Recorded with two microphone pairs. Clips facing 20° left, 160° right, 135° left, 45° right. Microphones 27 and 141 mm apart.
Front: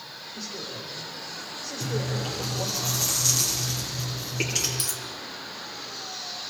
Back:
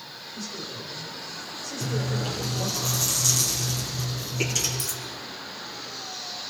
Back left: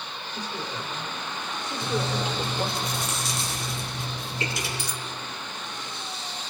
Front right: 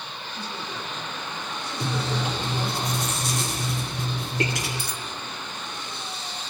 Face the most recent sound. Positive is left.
turn(degrees=-5)